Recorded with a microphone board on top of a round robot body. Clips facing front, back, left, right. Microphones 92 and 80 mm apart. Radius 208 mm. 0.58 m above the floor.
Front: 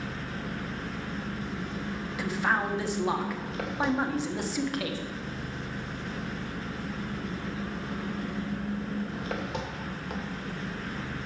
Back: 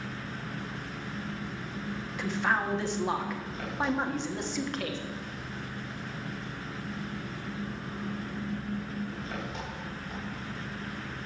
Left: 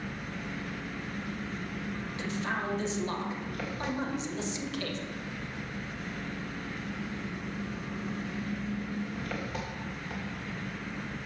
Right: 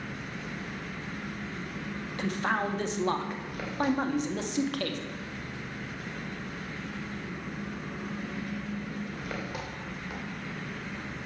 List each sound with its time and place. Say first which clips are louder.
0.0 s an engine running: front 3 dB, even; 10° right, 3 m
2.2 s a man speaking: front 1 dB, right 5 dB; 85° right, 1.7 m